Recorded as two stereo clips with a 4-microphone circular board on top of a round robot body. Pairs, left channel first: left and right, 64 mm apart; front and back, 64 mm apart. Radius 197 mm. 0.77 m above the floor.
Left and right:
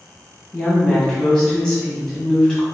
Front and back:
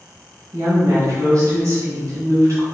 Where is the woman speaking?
170° left, 1.4 m.